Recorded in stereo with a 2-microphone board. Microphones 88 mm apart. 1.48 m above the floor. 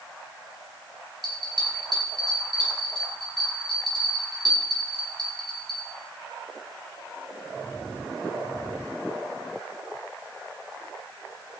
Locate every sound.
1.2 s a bell: 60° right (ahead or behind), 9.5 m